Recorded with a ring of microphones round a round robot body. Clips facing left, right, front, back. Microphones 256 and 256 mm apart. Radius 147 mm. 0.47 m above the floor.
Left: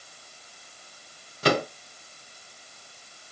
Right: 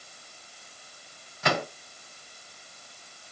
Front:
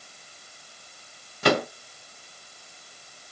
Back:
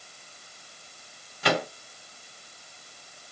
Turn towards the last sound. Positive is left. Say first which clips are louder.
# left 6 dB, front 5 dB
turn(degrees=40)